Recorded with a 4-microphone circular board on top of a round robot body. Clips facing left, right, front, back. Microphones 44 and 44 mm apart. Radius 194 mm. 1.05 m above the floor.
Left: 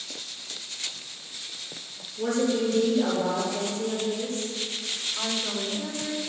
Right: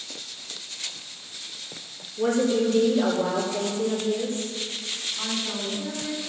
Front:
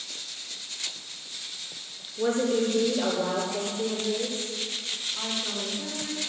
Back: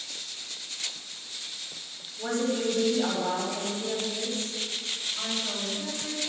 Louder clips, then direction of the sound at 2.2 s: Right 3 dB, front 4 dB; 40° right.